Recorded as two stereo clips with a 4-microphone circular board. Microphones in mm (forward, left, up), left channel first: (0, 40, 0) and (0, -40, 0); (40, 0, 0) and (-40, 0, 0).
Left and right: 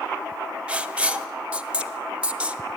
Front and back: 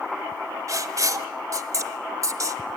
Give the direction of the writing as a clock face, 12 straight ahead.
5 o'clock.